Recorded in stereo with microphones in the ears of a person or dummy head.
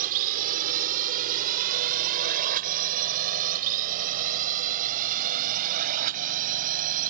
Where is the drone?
55° right (ahead or behind).